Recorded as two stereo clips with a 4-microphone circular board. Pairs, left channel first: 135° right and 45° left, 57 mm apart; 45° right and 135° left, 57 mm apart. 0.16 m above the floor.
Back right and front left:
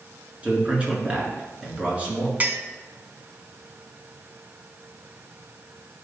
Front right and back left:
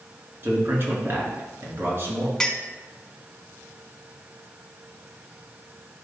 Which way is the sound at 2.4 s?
20° left.